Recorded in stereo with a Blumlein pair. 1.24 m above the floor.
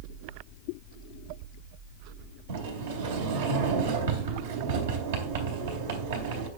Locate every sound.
2.5 s a sliding door: 60° right, 3.5 m